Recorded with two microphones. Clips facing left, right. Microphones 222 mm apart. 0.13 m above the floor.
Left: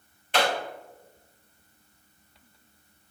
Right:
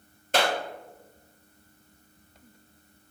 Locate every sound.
0.3 s a clap: 45° right (ahead or behind), 2.5 m